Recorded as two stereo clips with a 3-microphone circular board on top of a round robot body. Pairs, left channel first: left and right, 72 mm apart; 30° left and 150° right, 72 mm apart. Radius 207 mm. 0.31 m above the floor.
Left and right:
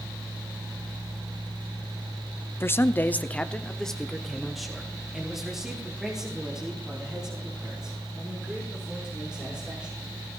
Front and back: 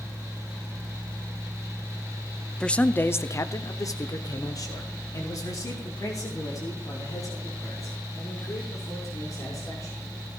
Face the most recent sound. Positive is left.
turn(degrees=-10)